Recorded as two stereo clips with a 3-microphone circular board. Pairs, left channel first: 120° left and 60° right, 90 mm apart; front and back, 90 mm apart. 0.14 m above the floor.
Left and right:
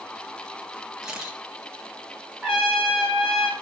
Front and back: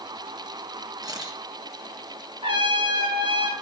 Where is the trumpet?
150° right, 4.5 m.